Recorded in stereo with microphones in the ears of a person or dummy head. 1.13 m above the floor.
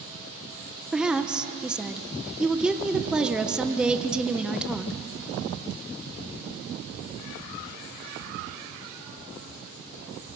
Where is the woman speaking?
5° right (ahead or behind), 0.7 m.